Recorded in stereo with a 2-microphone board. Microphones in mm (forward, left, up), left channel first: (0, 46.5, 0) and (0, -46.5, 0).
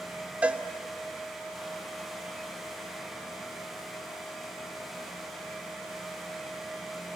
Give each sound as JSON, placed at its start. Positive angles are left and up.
{"t": 0.4, "sound": "a cowbell", "side_deg": -15, "distance_m": 0.9}